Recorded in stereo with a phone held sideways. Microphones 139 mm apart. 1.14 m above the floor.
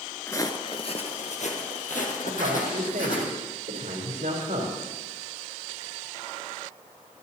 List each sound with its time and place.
0.3 s footsteps: 20° left (ahead or behind), 1.1 m; by 3.2 s 75° left (ahead or behind), 4 m
2.2 s a man speaking: 85° right, 4 m